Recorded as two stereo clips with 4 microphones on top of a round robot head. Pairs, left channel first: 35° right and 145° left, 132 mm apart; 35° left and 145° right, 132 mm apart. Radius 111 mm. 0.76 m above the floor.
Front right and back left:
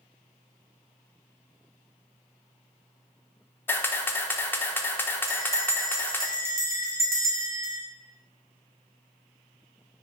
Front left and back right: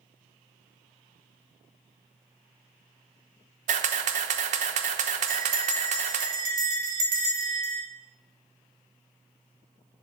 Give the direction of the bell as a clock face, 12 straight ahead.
5 o'clock.